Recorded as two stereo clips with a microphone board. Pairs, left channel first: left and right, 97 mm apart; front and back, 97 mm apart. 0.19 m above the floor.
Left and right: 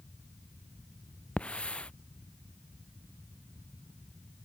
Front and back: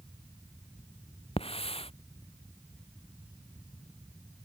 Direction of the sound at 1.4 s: 10° left.